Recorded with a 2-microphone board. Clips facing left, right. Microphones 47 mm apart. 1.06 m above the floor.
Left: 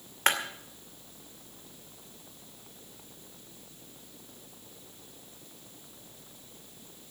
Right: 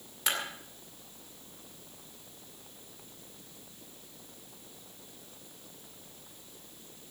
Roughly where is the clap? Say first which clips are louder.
Left 6 dB; left.